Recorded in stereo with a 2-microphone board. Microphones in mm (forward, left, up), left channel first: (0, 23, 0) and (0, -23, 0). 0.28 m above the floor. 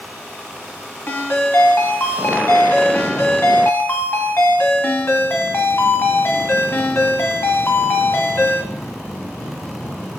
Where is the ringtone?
55° left (ahead or behind), 1.0 m.